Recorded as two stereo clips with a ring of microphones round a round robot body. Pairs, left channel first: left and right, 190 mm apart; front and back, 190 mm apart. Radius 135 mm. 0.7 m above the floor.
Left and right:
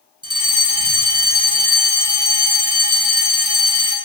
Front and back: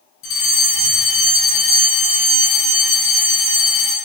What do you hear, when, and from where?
0.2 s a fire alarm: 25° right, 9.5 m